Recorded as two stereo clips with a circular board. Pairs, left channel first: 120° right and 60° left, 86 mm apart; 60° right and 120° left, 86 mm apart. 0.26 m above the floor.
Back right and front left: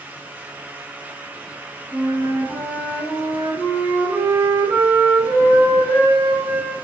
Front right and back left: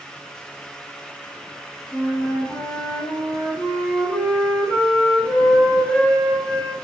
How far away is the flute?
About 5.5 m.